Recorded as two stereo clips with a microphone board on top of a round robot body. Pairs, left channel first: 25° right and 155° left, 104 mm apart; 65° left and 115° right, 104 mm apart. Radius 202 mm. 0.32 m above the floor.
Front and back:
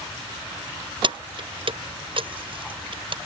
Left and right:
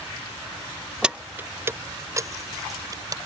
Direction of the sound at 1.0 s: 165° left.